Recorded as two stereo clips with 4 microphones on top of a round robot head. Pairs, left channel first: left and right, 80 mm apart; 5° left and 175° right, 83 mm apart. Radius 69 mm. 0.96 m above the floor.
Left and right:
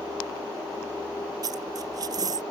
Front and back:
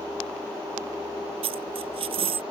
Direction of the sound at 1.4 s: 145° right.